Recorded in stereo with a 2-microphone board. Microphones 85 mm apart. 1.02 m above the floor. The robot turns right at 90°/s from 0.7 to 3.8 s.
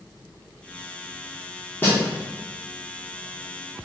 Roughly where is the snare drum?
Left.